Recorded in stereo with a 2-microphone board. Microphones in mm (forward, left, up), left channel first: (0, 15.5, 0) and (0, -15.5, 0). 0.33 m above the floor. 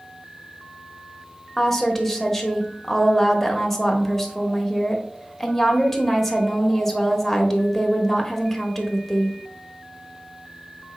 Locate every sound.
1.6 s a woman speaking: 5° left (ahead or behind), 0.9 m